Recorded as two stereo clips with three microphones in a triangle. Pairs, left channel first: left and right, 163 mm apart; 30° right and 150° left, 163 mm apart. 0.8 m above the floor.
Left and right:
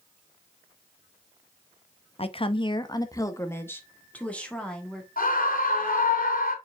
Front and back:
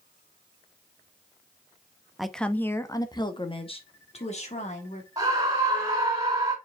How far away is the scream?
About 3 m.